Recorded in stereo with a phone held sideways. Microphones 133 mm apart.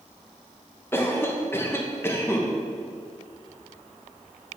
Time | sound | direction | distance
0.9 | a cough | 15° left (ahead or behind) | 0.9 m